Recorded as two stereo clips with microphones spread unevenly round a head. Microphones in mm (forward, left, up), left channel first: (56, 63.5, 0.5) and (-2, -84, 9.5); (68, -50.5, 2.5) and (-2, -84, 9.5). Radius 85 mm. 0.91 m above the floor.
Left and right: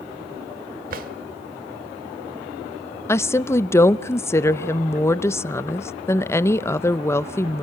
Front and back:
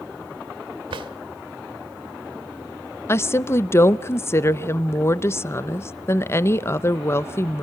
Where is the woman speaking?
5° left, 0.6 m.